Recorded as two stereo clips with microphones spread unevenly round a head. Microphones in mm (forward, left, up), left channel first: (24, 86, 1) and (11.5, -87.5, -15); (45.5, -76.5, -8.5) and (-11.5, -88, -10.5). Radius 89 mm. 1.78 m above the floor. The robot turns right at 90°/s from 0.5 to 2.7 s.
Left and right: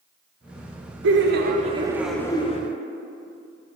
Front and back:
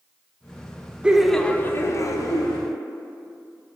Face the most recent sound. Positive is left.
turn(degrees=55)